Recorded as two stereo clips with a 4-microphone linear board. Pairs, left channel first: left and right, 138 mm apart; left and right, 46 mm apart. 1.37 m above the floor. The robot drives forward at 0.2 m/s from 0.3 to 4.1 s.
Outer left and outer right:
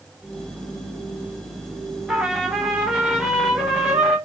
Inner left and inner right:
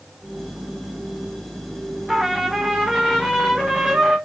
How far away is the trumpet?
About 0.8 m.